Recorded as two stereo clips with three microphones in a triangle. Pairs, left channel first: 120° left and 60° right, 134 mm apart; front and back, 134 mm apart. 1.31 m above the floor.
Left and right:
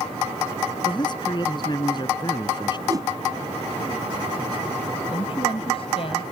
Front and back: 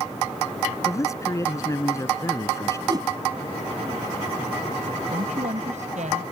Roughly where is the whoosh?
Behind right.